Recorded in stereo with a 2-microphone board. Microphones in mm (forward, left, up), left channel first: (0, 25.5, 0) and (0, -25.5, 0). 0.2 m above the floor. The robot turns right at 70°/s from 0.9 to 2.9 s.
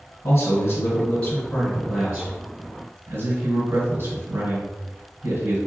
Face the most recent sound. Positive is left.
turn(degrees=-95)